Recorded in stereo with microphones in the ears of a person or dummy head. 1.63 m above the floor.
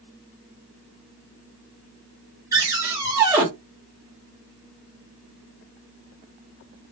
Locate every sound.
2.5 s a cupboard door: 15° right (ahead or behind), 2.5 m